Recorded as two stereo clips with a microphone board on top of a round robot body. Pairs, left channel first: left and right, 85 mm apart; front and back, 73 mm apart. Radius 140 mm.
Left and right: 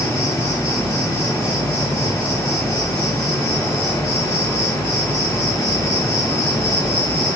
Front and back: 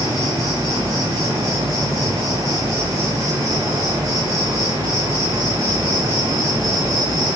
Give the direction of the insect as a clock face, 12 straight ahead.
7 o'clock.